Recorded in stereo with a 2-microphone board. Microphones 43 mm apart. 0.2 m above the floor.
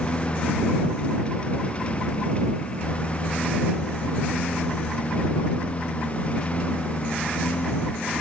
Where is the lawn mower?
25° left (ahead or behind); by 8.2 s 30° left (ahead or behind).